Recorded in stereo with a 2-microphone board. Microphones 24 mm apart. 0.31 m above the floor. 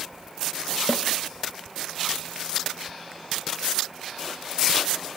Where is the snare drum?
25° left (ahead or behind), 0.8 m.